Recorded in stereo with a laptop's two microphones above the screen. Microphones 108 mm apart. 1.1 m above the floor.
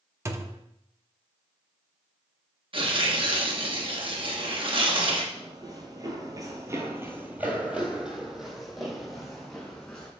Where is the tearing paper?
50° right (ahead or behind), 1.2 m.